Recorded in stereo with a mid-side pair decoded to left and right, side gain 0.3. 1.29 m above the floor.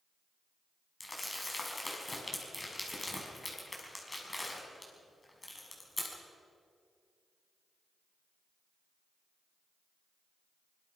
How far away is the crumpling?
About 6 m.